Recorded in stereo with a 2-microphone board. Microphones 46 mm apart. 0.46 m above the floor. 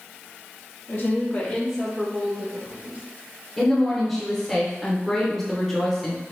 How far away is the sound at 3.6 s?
About 0.9 m.